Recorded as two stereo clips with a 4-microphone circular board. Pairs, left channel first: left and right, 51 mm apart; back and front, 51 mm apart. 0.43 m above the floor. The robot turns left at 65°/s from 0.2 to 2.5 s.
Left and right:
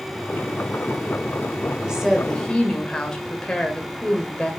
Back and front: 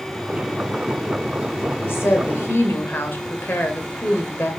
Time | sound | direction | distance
1.8 | a woman speaking | 160° right | 2 m